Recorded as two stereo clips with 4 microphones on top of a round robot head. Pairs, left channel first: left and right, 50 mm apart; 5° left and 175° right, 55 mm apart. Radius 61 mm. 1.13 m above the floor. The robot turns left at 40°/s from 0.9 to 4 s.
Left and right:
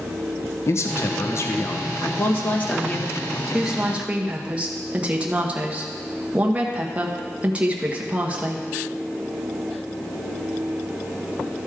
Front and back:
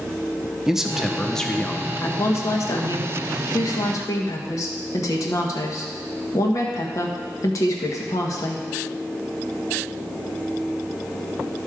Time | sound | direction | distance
0.7 | a man speaking | 100° left | 1.0 m
2.0 | a woman speaking | 55° left | 1.3 m